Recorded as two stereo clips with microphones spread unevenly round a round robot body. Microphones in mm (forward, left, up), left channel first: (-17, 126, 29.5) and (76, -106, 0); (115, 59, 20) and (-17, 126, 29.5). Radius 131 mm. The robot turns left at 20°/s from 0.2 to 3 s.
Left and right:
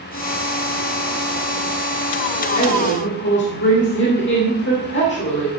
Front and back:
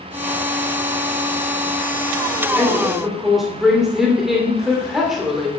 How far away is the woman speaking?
About 2.5 m.